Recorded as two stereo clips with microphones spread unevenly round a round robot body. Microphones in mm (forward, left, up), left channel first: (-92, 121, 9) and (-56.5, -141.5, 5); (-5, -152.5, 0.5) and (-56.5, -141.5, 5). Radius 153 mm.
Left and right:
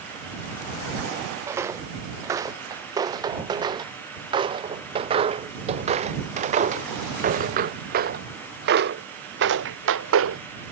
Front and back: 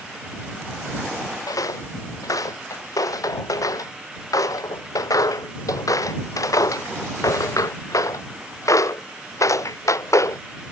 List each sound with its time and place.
1.5 s footsteps: straight ahead; by 10.4 s 30° right